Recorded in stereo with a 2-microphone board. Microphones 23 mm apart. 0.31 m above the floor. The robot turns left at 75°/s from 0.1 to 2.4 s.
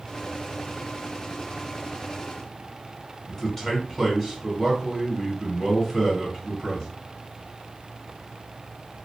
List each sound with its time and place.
3.3 s a man speaking: 20° left (ahead or behind), 1.4 m